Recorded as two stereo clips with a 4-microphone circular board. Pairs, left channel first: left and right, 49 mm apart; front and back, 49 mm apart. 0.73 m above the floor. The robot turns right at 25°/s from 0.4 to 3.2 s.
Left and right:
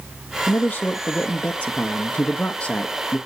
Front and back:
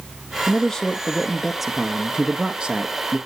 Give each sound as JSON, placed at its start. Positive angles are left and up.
{"t": 0.5, "sound": "a man speaking", "azimuth_deg": 75, "distance_m": 0.6}